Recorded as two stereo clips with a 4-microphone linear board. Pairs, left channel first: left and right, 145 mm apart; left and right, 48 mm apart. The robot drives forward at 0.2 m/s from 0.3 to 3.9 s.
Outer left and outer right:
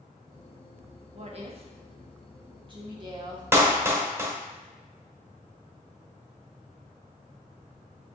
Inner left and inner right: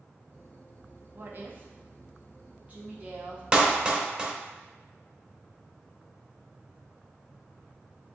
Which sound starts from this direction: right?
A woman speaking, at 1.1 s.